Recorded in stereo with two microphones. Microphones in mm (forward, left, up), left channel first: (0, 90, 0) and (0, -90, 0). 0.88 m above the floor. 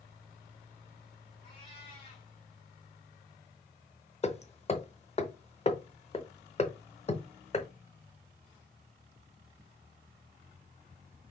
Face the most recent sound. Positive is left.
turn(degrees=35)  # may be behind; listen again after turning